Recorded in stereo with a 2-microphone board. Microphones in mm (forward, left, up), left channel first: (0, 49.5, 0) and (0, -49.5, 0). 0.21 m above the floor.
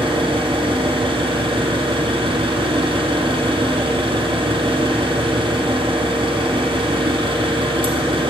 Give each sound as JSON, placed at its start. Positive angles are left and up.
{"t": 0.0, "sound": "an engine running", "side_deg": -55, "distance_m": 1.5}